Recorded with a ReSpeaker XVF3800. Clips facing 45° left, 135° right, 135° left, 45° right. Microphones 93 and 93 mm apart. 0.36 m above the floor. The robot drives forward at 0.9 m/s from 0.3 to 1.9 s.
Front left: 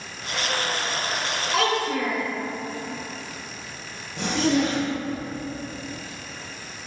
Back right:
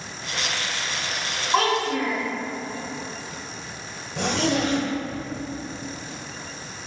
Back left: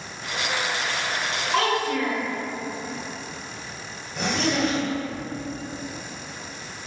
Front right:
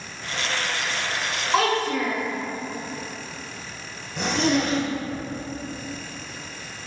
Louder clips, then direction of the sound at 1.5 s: Back right 2 dB, front right 2 dB; 110° right.